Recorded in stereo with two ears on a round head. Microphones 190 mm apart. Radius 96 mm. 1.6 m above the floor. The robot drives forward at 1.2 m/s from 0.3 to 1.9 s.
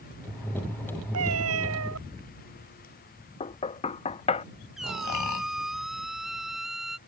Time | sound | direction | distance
1.1 | a cat meowing | 80° right | ?
3.4 | knocking | 30° left (ahead or behind) | ?
4.8 | a squeak | centre (ahead or behind) | ?